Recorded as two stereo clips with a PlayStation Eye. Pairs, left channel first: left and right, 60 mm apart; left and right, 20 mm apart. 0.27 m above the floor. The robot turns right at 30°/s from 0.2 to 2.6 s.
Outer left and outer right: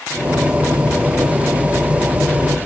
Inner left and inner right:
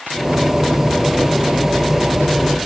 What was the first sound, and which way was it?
Only background noise.